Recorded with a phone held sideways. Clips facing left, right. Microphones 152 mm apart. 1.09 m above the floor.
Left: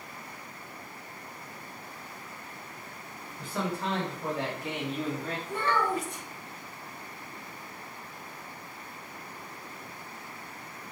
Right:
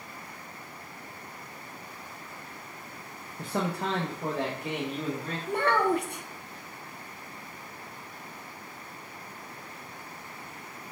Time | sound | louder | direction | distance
3.4 | a man speaking | right 2 dB | 70° right (ahead or behind) | 0.5 m
5.5 | a child speaking | right 4 dB | 65° right (ahead or behind) | 0.5 m